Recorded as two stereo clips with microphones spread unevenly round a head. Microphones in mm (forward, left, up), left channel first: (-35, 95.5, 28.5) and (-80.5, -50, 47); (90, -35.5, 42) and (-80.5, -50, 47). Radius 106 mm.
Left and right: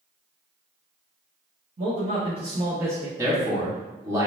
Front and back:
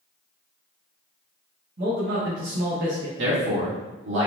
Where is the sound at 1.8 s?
150° right, 1.4 m; by 3.1 s 170° left, 1.0 m.